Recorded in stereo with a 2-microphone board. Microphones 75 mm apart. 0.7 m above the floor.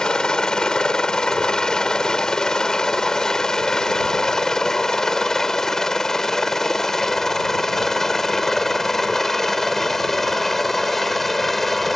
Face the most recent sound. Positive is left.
turn(degrees=5)  # may be behind; listen again after turning